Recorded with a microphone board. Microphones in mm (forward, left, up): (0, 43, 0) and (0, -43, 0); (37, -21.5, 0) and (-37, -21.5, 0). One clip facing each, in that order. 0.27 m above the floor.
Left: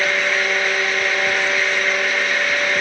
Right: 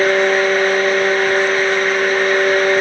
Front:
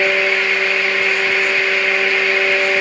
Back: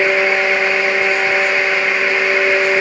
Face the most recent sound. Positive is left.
No sound to turn to.